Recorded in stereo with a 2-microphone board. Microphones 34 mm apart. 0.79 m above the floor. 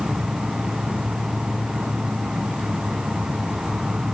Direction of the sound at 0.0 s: 35° right (ahead or behind).